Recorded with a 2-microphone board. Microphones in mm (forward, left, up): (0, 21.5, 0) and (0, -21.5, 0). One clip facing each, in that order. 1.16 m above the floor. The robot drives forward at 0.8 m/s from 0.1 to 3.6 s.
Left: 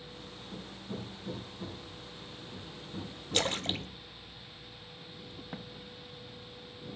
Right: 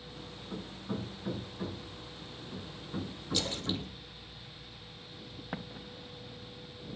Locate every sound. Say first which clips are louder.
0.5 s hammering: right 4 dB; 65° right (ahead or behind), 5.5 m; by 4.0 s 45° right (ahead or behind), 7 m
3.3 s a splash: left 3 dB; 55° left (ahead or behind), 1.2 m
5.5 s an explosion: right 6 dB; 30° right (ahead or behind), 0.7 m